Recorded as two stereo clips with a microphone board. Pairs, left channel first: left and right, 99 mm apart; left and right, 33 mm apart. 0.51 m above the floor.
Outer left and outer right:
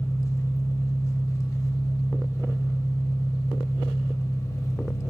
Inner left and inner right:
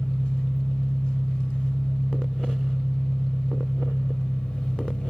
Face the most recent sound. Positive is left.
turn(degrees=30)  # may be behind; listen again after turning